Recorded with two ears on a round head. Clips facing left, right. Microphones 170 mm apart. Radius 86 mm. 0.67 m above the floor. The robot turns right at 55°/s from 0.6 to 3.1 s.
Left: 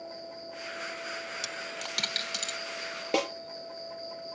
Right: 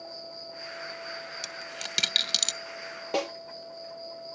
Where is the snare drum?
25° left (ahead or behind), 4 m.